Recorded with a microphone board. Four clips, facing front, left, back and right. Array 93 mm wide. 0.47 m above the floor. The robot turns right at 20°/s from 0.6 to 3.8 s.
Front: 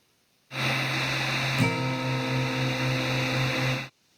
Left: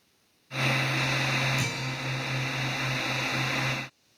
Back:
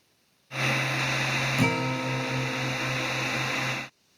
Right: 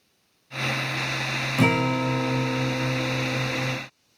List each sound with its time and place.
1.6 s a guitar: 95° right; by 3.8 s 50° right